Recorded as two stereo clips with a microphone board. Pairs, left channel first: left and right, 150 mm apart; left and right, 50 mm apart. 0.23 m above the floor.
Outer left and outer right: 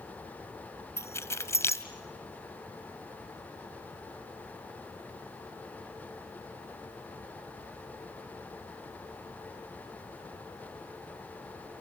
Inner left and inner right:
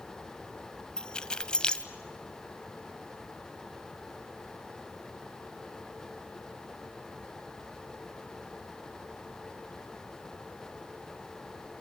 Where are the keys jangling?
15° left (ahead or behind), 0.7 m.